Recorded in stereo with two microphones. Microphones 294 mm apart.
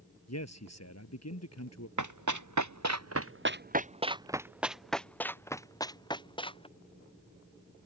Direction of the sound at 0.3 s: 60° left (ahead or behind).